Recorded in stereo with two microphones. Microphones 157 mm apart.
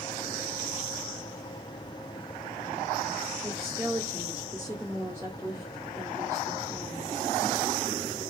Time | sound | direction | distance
3.4 | a woman speaking | 20° right (ahead or behind) | 1.7 m